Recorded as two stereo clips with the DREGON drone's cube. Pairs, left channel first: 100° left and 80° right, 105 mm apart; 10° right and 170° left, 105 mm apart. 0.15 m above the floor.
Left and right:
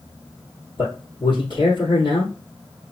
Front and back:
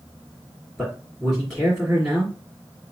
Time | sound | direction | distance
0.8 | a man speaking | 80° left | 2.0 m